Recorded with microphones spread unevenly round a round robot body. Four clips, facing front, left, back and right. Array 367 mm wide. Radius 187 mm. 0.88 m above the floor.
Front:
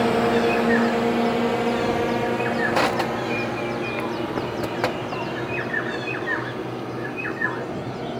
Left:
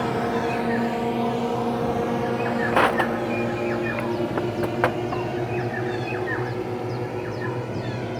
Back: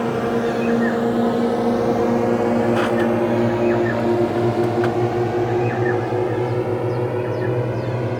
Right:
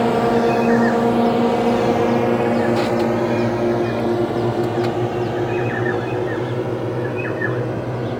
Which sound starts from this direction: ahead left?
Crushing, at 2.7 s.